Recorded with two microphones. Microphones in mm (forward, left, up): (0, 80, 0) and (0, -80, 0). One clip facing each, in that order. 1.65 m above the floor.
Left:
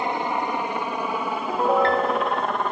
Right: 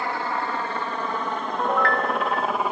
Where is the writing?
I don't hear writing.